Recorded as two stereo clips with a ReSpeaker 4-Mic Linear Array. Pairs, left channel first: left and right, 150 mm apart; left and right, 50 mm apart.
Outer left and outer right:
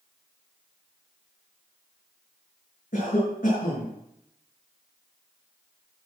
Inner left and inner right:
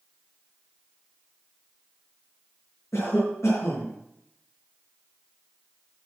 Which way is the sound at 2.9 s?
75° left (ahead or behind).